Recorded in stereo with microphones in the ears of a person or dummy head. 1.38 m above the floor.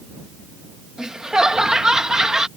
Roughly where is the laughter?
Centre.